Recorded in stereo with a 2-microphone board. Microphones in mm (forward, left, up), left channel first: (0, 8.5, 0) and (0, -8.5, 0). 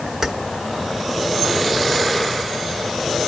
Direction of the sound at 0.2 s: 25° right (ahead or behind).